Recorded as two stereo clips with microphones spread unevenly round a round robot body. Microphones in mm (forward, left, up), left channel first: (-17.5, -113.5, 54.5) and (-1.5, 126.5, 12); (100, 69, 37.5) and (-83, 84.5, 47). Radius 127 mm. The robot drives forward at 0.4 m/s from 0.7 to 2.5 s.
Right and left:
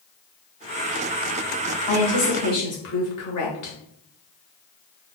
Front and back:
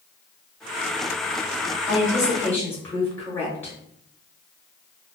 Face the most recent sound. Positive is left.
turn(degrees=-80)